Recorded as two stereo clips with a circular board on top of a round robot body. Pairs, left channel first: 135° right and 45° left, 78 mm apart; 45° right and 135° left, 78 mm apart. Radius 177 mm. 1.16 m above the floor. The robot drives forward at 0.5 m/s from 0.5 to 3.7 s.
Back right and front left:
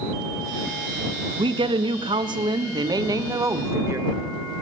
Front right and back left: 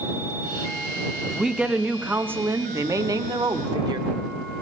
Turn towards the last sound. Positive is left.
turn(degrees=105)